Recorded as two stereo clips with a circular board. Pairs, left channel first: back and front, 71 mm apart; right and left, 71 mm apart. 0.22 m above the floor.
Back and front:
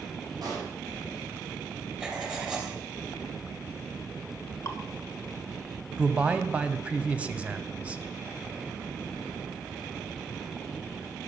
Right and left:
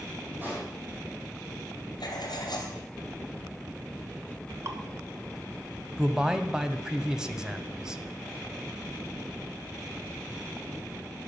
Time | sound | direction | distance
0.4 | a pop | 25° left | 5.5 m
2.0 | writing | 75° right | 2.5 m
4.7 | dripping | 135° left | 1.3 m
6.0 | a man speaking | 30° left | 0.9 m